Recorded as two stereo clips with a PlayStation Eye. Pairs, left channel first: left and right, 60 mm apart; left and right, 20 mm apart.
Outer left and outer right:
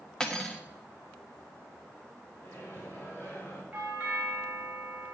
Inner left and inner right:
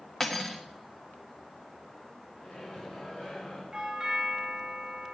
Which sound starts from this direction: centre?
Cutlery clinking, at 0.2 s.